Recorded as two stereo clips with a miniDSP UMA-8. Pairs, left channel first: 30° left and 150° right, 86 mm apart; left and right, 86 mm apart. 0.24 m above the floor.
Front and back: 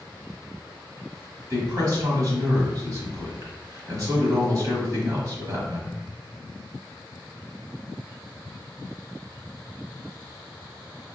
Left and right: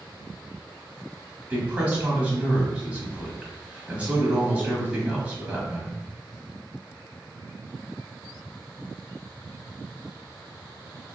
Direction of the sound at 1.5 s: 155° right.